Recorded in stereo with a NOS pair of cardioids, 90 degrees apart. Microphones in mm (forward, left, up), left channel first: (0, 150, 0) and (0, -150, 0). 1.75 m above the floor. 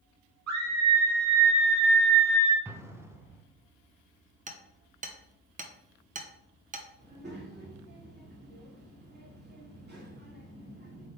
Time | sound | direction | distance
0.5 | a scream | 65° right | 2.5 m
2.6 | an explosion | 10° right | 0.9 m
4.5 | hammering | 30° right | 1.1 m
7.0 | a child speaking | 35° right | 3 m